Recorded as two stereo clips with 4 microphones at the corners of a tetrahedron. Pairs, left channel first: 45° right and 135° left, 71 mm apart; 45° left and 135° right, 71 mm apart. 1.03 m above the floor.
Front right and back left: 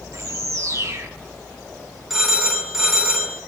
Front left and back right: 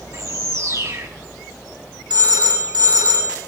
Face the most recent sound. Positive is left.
turn(degrees=-140)